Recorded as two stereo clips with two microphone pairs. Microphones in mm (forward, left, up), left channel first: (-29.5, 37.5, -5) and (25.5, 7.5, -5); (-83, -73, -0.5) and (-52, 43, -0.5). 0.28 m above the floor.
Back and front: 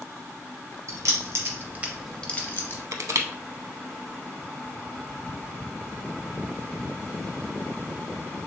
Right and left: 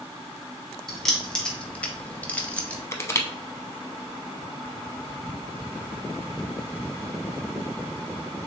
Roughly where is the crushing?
Ahead right.